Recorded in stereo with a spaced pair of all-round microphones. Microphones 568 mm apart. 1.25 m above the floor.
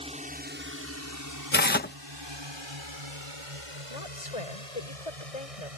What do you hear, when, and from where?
0.0 s a drone: 10° right (ahead or behind); by 5.8 s 80° right
1.5 s tearing paper: 20° left (ahead or behind)
3.9 s a woman speaking: 85° left